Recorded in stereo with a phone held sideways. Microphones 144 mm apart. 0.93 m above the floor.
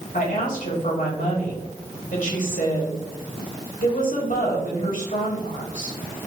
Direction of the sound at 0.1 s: 75° left (ahead or behind).